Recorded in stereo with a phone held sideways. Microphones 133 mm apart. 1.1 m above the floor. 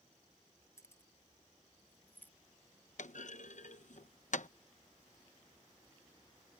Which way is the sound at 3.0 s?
70° left (ahead or behind).